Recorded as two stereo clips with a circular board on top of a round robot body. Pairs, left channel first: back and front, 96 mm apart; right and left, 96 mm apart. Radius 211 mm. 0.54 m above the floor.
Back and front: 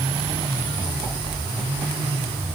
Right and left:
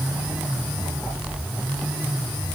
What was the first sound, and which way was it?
Only background noise.